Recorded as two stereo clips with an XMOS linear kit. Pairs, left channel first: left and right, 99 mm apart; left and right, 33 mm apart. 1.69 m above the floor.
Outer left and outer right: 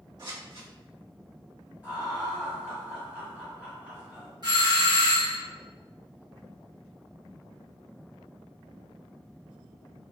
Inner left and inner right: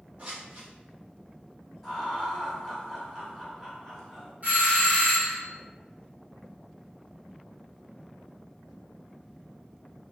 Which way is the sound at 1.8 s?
10° right (ahead or behind).